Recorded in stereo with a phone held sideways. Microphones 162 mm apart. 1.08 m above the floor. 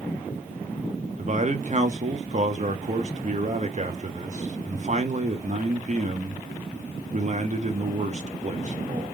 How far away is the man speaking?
About 0.8 m.